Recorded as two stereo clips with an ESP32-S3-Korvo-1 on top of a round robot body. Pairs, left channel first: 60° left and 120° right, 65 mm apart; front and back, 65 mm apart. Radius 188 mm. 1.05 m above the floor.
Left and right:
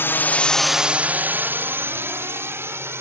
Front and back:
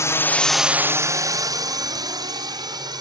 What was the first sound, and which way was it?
A drone, 15° left.